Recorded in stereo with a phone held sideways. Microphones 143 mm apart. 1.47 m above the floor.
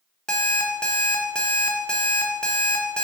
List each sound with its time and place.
0.3 s an alarm clock: 5° left (ahead or behind), 1.0 m